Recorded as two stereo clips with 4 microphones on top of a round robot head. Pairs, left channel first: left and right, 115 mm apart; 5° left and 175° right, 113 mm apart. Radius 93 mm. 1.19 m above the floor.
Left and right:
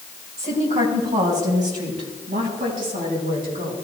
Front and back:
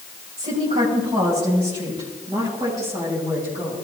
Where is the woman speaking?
130° right, 7.5 m; by 3.8 s 105° right, 10.5 m.